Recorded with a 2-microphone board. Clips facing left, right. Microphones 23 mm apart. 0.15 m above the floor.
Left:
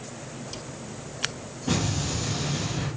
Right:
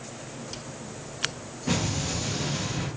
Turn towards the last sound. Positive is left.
turn(degrees=-45)  # may be behind; listen again after turning